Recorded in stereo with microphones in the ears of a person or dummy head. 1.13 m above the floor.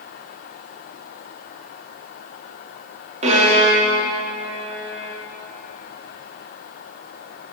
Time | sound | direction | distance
3.2 | a violin | 30° right (ahead or behind) | 1.0 m